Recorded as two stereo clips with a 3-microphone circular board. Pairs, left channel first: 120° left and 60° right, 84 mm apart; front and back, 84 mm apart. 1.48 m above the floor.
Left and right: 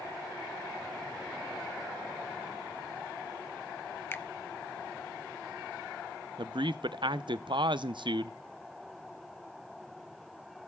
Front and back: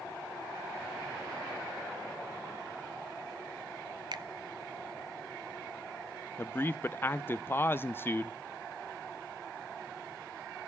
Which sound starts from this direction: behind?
A finger snap, at 4.1 s.